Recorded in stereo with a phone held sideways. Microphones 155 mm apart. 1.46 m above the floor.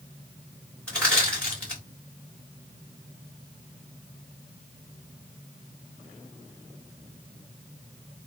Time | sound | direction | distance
0.9 | crushing | 5° left (ahead or behind) | 1.8 m